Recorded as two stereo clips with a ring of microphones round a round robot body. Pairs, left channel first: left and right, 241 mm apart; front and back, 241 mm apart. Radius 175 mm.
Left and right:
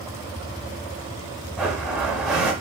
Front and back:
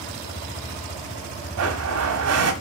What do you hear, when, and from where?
1.6 s a blender: straight behind, 1.2 m